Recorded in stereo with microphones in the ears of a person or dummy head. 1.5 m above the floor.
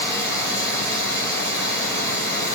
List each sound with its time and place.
0.0 s running water: 5° left (ahead or behind), 6 m